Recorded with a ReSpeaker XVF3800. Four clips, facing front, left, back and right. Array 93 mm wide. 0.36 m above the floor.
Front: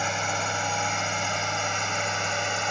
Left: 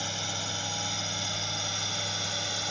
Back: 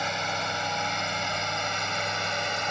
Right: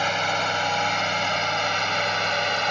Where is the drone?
75° right; by 2.7 s 80° right.